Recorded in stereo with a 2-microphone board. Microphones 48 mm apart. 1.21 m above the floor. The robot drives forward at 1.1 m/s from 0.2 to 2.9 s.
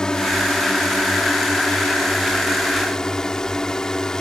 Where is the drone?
15° left (ahead or behind); by 4.2 s 10° left (ahead or behind).